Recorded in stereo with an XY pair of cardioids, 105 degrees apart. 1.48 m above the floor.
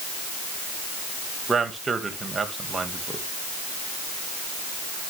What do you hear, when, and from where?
1.5 s a man speaking: 30° right, 2.5 m